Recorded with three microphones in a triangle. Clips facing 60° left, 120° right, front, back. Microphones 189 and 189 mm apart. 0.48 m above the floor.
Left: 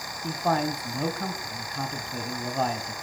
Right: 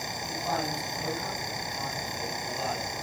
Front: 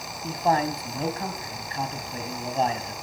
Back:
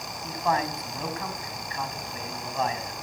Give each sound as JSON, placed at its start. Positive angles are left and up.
{"t": 0.2, "sound": "a man speaking", "azimuth_deg": 55, "distance_m": 3.0}